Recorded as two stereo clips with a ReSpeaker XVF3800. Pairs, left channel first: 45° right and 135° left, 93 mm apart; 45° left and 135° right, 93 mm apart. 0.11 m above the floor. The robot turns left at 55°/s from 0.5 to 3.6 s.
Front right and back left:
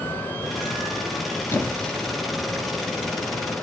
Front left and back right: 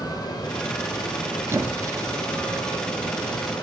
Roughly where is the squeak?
Right.